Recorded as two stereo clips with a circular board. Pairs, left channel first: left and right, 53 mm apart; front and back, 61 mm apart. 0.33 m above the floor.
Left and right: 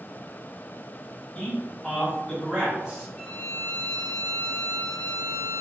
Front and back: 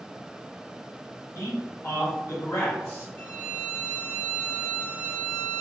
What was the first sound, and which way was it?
A man speaking, 15° left.